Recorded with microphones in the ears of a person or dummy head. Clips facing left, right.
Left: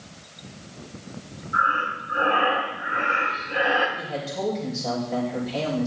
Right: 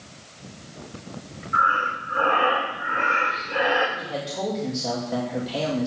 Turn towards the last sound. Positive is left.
turn(degrees=-10)  # may be behind; listen again after turning